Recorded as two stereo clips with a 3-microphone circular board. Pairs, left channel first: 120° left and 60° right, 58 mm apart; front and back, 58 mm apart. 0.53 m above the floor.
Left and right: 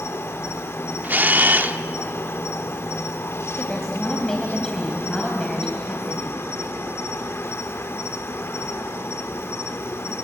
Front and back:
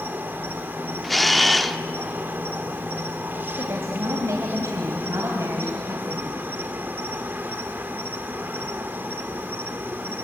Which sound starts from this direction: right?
A camera shutter, at 1.0 s.